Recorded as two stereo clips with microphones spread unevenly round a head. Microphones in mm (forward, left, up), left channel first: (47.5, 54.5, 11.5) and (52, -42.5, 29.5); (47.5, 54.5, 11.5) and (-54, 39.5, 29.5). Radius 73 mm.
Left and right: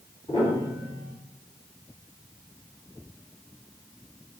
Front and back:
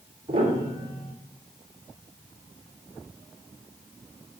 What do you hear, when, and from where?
0.3 s a piano: 160° left, 3 m